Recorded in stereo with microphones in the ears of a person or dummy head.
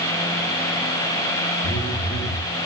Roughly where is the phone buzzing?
Left.